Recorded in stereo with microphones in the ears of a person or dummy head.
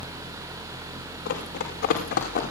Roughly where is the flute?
I don't hear a flute.